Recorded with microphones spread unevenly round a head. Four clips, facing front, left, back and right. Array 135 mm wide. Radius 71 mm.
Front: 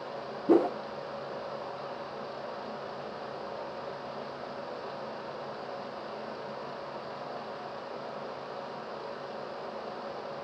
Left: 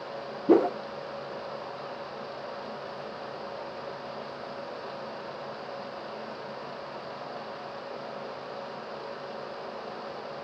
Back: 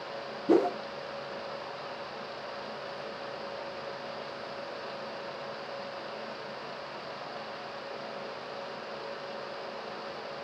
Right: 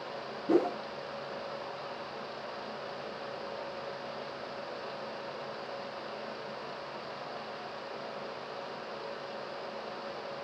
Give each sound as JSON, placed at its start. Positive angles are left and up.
{"t": 0.5, "sound": "a whoosh", "azimuth_deg": 75, "distance_m": 0.6}